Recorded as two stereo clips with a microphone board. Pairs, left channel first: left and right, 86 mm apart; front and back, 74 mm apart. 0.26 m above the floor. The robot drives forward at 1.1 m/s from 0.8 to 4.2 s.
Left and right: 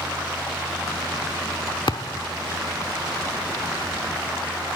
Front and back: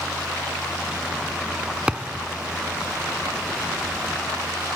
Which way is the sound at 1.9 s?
100° left.